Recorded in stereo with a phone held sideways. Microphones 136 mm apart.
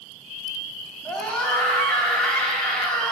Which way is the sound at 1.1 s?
5° left (ahead or behind).